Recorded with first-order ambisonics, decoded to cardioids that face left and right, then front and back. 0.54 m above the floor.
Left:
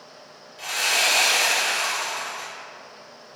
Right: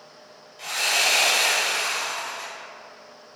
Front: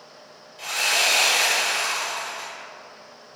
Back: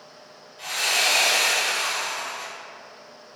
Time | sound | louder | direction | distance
0.6 | sawing | left 1 dB, front 1 dB | 70° left | 1.4 m